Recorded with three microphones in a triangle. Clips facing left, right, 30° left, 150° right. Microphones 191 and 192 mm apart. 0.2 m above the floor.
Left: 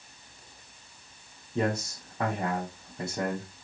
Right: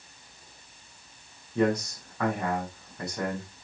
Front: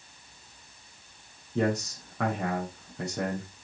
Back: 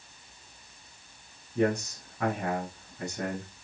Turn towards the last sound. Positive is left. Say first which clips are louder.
# right 4 dB, even
turn(degrees=25)